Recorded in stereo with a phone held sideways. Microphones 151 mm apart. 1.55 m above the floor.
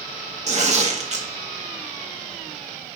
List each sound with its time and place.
0.5 s tearing paper: 50° right (ahead or behind), 1.2 m